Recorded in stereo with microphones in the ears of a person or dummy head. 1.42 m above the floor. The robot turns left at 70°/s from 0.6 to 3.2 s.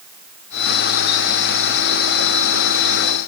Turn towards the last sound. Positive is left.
No sound to turn to.